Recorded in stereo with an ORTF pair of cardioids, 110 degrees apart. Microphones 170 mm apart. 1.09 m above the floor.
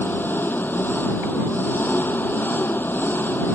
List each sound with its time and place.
0.0 s an engine running: 10° left